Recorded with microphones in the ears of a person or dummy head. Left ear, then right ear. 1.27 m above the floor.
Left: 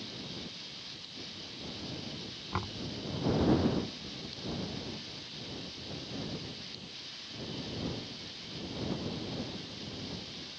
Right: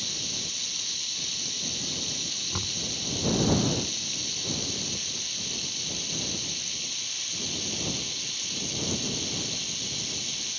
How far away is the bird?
I don't hear a bird.